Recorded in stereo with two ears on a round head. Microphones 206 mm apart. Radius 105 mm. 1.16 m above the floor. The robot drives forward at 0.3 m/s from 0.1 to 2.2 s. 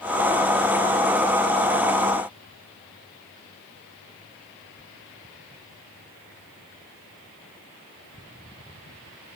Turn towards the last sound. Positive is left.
No sound to turn to.